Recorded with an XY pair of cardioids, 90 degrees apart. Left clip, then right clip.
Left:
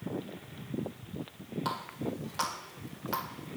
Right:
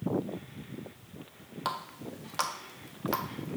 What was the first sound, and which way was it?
A running tap, 40° right.